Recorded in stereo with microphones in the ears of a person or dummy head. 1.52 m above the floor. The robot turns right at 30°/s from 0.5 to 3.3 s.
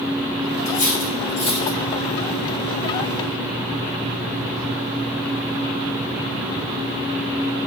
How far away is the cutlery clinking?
About 1.2 m.